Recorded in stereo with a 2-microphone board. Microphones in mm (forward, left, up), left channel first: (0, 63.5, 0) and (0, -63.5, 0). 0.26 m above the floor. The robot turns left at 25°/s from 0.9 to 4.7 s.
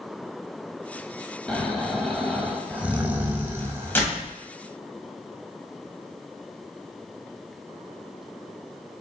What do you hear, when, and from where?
1.5 s snoring: 5° left (ahead or behind), 0.6 m; by 4.0 s 20° right (ahead or behind), 0.6 m
4.0 s a door slam: 15° left (ahead or behind), 1.1 m; by 4.3 s 10° left (ahead or behind), 1.1 m